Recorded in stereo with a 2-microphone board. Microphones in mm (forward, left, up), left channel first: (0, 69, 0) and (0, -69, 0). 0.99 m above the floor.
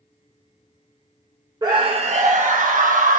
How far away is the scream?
About 0.5 m.